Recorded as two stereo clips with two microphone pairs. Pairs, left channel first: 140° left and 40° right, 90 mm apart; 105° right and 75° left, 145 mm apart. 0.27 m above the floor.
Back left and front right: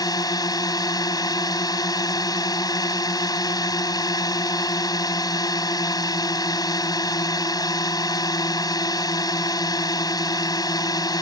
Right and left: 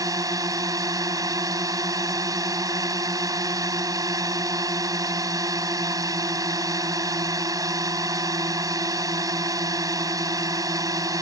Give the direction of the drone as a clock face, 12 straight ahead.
8 o'clock.